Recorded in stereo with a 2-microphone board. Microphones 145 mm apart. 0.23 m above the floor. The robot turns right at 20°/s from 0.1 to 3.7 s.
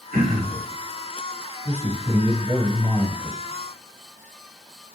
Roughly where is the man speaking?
Ahead right.